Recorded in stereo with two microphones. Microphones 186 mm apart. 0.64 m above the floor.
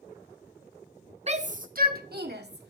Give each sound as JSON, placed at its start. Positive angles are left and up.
{"t": 1.3, "sound": "a shout", "side_deg": -35, "distance_m": 0.6}